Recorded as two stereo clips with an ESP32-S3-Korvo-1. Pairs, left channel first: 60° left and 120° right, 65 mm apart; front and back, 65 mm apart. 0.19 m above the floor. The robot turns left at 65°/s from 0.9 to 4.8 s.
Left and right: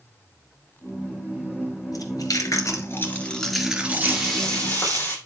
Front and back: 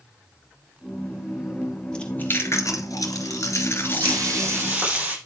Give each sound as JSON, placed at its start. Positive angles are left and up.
{"t": 1.9, "sound": "chewing", "azimuth_deg": 75, "distance_m": 2.5}
{"t": 4.0, "sound": "frying", "azimuth_deg": 165, "distance_m": 6.0}